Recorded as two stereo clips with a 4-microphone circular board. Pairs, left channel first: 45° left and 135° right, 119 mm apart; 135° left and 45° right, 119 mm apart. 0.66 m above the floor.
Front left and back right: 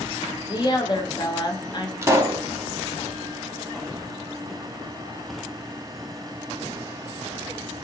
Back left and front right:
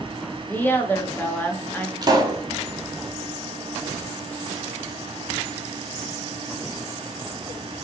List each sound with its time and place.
0.5 s a woman speaking: 70° left, 0.6 m
2.0 s a pop: 80° right, 0.6 m